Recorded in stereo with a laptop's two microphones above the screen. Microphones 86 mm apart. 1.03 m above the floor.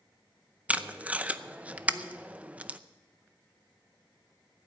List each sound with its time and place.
0.7 s tape being pulled: 15° right (ahead or behind), 0.6 m